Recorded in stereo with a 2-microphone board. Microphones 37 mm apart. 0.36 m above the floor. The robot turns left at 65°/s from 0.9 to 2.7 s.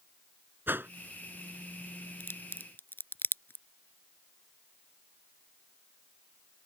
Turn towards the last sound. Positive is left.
turn(degrees=65)  # may be behind; listen again after turning